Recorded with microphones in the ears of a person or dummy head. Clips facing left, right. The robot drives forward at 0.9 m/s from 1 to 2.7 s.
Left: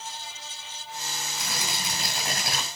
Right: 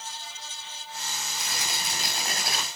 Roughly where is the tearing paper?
Left.